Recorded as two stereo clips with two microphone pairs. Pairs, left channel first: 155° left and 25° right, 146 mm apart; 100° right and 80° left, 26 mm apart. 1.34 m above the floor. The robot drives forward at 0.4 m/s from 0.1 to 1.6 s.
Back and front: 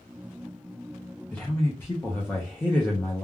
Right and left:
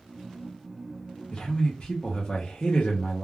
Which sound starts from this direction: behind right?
A man speaking, at 1.3 s.